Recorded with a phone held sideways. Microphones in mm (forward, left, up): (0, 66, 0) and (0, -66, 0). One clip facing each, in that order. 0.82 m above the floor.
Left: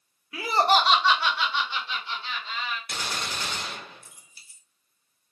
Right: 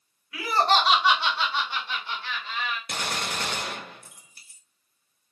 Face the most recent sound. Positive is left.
turn(degrees=-60)  # may be behind; listen again after turning